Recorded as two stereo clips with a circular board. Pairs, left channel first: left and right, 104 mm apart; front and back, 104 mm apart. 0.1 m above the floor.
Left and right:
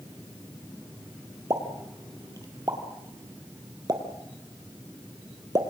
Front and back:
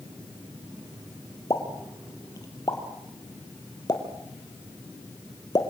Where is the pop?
45° right, 3 m.